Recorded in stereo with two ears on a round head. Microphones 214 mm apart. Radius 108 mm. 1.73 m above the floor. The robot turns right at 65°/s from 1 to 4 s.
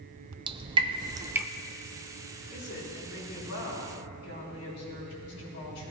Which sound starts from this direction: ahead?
A woman speaking, at 2.5 s.